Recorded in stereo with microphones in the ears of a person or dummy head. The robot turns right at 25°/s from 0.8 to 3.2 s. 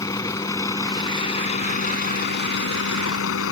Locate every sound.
0.0 s a vehicle: 15° left; by 3.5 s 75° left